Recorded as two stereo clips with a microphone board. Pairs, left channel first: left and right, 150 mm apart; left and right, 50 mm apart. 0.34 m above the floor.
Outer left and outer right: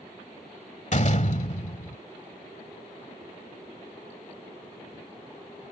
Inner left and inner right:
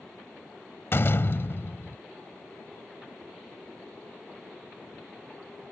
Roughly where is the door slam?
Left.